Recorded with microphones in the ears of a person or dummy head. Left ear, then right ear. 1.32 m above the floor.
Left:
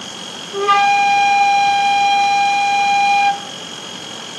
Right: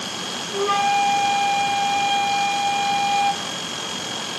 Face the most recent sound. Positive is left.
turn(degrees=30)  # may be behind; listen again after turning